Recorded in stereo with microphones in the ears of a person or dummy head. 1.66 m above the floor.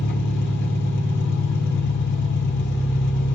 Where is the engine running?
60° left (ahead or behind), 2.5 m.